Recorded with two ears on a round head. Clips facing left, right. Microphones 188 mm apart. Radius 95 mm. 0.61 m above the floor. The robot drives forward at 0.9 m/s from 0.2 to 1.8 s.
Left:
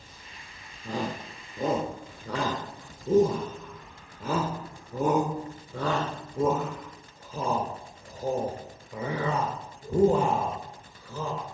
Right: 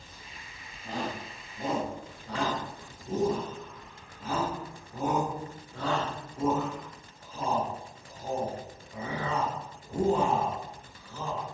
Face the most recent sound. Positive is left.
turn(degrees=60)  # may be behind; listen again after turning